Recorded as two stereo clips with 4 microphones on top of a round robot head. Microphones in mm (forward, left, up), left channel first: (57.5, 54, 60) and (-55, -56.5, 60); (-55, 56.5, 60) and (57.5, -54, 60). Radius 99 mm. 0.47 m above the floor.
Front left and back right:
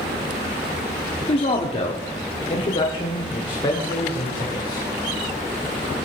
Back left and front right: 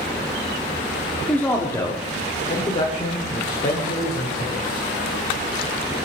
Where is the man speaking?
60° left, 1.3 m; by 4.8 s 105° left, 3 m.